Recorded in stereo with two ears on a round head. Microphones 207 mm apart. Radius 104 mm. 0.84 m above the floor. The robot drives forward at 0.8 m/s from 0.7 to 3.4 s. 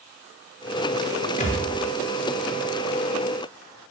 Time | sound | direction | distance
1.4 | a thud | 30° left (ahead or behind) | 4.5 m